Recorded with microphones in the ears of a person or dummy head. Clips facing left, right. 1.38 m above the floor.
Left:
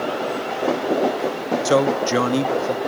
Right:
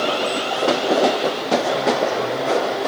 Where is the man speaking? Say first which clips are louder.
Left 2 dB; 80° left, 1.8 m.